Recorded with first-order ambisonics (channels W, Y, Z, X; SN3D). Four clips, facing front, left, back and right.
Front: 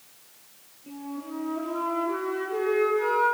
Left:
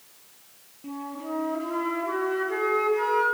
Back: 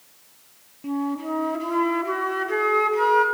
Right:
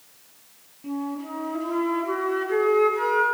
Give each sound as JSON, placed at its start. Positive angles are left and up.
{"t": 0.8, "sound": "a flute", "azimuth_deg": -175, "distance_m": 3.0}